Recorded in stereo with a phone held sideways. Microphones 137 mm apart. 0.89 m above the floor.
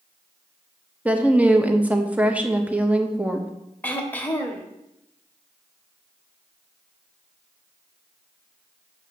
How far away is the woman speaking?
About 0.9 m.